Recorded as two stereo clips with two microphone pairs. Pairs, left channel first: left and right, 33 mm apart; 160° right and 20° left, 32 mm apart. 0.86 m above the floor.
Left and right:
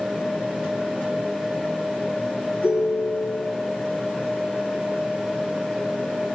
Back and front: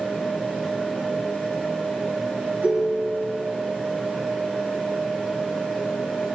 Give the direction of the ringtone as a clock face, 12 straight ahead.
11 o'clock.